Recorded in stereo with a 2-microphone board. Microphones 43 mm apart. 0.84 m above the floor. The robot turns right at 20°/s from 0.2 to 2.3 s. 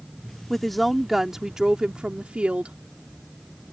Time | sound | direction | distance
0.5 | a woman speaking | 175° left | ?